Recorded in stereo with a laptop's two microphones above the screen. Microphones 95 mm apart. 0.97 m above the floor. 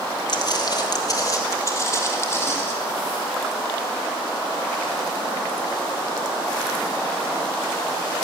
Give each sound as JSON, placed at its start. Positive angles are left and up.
{"t": 0.3, "sound": "footsteps", "side_deg": 50, "distance_m": 1.5}